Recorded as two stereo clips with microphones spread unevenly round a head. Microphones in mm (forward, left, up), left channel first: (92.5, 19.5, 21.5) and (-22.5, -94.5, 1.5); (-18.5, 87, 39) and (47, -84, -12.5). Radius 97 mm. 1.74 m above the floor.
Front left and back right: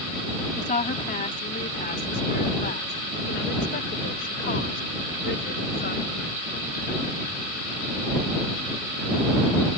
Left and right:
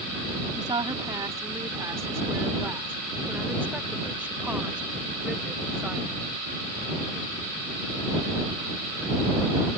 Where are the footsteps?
No footsteps in this recording.